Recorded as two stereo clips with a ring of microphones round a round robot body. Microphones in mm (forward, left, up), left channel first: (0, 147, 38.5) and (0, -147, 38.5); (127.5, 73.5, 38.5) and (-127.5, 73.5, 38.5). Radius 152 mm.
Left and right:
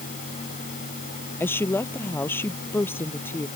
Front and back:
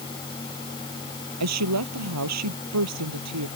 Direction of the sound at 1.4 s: 175° left.